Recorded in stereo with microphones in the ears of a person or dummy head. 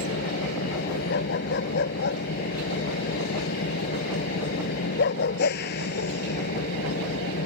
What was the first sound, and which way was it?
An engine running, 55° left (ahead or behind).